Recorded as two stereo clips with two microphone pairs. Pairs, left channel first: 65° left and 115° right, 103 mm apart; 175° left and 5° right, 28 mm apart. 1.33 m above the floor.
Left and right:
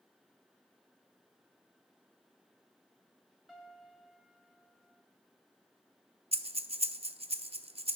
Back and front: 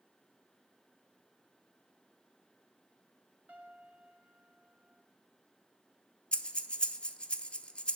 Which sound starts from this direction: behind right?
Breathing, at 6.3 s.